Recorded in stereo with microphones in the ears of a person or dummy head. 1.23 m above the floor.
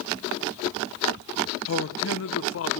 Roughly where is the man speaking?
Left.